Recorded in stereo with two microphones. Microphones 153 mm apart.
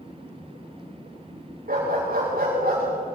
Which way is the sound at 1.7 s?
65° right (ahead or behind).